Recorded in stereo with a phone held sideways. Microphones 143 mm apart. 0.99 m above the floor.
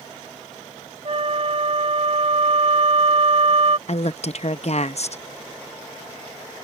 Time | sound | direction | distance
1.1 | a flute | 50° right (ahead or behind) | ?
3.9 | a woman speaking | 55° left (ahead or behind) | ?